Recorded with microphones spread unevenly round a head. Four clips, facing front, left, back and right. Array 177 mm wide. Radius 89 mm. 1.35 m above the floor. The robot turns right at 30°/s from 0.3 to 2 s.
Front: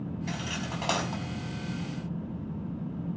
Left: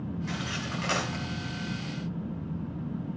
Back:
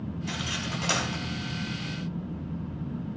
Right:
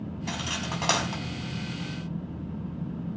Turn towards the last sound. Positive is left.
turn(degrees=-20)